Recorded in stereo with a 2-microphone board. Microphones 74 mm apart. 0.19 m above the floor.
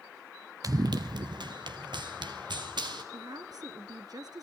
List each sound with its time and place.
0.6 s running footsteps: 55° right (ahead or behind), 0.9 m; by 3.0 s 80° right, 4 m
3.1 s a woman speaking: 60° right (ahead or behind), 2.5 m